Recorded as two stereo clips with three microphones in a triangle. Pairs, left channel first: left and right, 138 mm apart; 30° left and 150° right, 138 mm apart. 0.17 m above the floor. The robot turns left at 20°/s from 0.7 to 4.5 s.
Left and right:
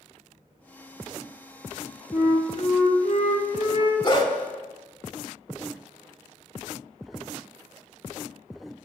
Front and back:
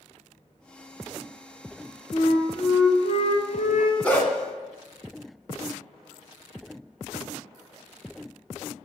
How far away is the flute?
About 0.6 m.